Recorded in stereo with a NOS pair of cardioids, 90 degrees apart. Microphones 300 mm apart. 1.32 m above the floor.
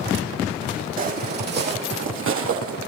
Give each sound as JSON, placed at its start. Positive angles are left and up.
{"t": 1.0, "sound": "footsteps", "azimuth_deg": -30, "distance_m": 4.0}